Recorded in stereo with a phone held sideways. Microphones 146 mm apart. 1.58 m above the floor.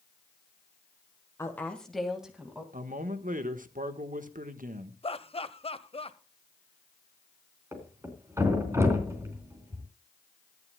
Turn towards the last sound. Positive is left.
turn(degrees=-20)  # may be behind; listen again after turning